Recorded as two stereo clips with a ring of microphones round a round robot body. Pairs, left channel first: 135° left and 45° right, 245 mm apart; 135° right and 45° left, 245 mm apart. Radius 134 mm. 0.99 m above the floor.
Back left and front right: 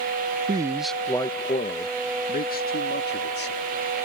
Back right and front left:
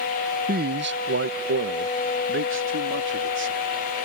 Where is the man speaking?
15° left; by 3.7 s 85° left.